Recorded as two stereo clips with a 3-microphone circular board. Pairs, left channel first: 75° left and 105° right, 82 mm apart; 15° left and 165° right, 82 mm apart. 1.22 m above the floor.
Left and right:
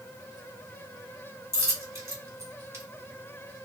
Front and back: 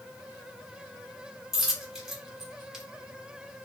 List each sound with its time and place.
1.5 s a dropped coin: 80° right, 1.0 m